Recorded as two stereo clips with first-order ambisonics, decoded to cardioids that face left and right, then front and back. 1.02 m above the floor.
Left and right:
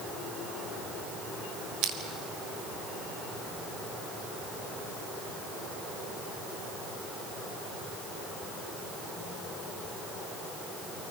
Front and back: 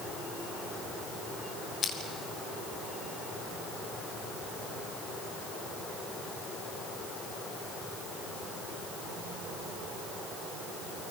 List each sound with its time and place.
1.8 s crushing: 60° right, 3 m